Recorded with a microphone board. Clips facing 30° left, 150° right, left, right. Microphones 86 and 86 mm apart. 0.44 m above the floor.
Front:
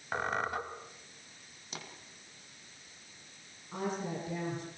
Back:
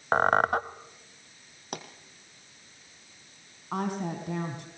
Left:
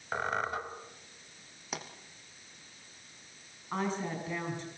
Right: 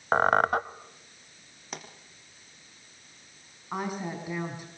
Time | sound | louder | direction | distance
0.1 | a squeak | back 11 dB, right 11 dB | 120° right | 1.0 m
1.7 | a pop | back 8 dB, left 1 dB | straight behind | 3.5 m
3.7 | a woman speaking | back 5 dB, right 1 dB | 165° right | 4.5 m